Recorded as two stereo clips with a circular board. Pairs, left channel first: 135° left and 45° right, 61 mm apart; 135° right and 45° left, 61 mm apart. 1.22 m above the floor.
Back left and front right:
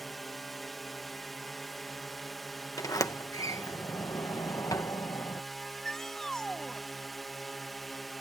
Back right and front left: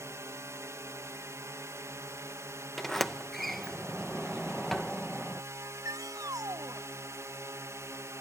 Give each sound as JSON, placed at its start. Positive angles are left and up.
{"t": 0.0, "sound": "a drone", "azimuth_deg": 45}
{"t": 2.8, "sound": "a sliding door", "azimuth_deg": 135}
{"t": 5.6, "sound": "a shout", "azimuth_deg": 55}